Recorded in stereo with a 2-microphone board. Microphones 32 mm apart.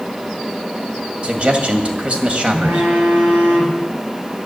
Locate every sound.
1.2 s a man speaking: 35° right (ahead or behind), 1.9 m
2.5 s a phone buzzing: 80° right, 7 m